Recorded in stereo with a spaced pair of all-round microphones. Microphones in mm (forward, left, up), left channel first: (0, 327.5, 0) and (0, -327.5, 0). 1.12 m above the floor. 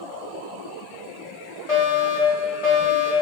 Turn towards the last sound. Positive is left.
turn(degrees=50)  # may be behind; listen again after turning